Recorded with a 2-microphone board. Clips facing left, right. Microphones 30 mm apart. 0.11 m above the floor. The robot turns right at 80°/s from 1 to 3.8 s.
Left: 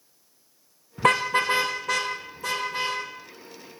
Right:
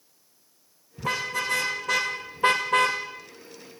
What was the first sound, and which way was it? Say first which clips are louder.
A car horn: left 7 dB; 75° left (ahead or behind).